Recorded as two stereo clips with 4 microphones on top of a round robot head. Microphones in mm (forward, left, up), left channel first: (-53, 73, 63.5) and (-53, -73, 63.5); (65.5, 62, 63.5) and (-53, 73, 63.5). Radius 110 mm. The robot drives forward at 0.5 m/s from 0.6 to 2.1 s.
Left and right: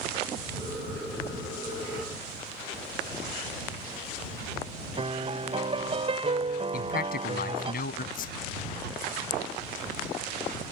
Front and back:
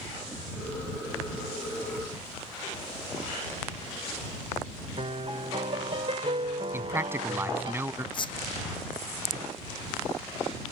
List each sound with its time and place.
5.0 s a piano: 135° right
6.7 s a man speaking: 105° left
8.1 s a squeak: 45° left